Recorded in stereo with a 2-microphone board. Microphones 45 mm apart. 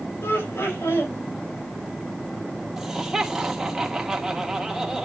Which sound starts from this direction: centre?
Laughter, at 2.8 s.